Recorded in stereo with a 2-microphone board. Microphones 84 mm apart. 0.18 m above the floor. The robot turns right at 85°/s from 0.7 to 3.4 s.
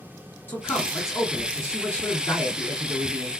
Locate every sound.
0.5 s a man speaking: 45° left, 2.0 m; by 3.3 s 95° right, 2.0 m